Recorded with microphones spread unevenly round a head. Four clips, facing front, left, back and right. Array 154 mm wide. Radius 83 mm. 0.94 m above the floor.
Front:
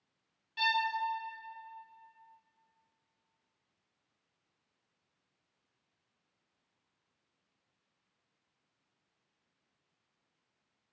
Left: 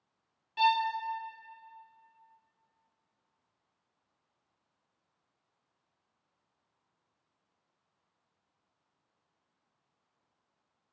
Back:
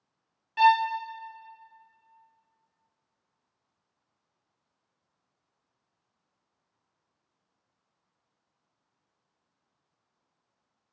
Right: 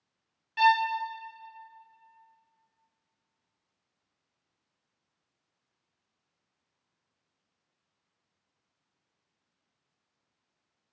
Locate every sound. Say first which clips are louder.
0.6 s a violin: right 4 dB, back 12 dB; 170° left, 0.6 m